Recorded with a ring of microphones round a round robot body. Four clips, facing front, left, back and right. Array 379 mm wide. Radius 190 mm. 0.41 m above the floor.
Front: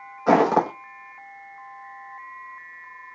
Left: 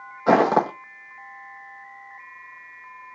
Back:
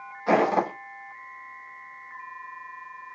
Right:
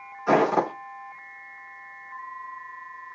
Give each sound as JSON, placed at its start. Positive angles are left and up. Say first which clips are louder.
{"t": 0.3, "sound": "footsteps", "louder": "left 3 dB, front 4 dB", "azimuth_deg": 55, "distance_m": 0.8}